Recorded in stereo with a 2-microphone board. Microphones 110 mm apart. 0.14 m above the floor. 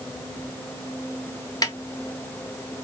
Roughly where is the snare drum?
Left.